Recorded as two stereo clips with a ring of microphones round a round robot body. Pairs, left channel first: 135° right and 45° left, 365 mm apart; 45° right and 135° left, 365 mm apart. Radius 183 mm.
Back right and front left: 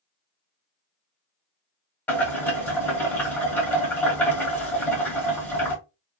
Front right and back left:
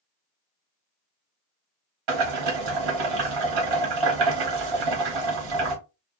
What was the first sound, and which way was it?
Boiling, 140° left.